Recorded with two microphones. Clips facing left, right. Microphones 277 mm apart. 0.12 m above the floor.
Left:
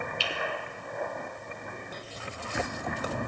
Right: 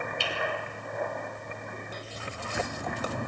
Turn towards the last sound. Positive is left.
turn(degrees=-55)  # may be behind; listen again after turning